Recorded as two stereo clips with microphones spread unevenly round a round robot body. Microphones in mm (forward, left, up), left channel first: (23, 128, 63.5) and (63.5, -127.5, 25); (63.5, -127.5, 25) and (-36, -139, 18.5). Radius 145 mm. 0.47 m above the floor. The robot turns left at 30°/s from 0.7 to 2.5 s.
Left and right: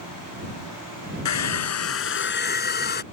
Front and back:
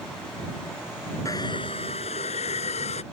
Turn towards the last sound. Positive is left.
turn(degrees=45)